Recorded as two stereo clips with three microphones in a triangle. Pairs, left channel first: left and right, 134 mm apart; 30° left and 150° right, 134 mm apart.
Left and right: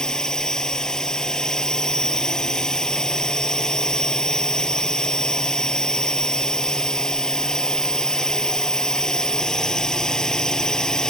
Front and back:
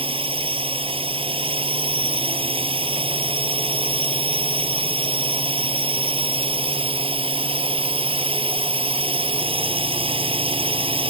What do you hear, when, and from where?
0.0 s a drone: 175° left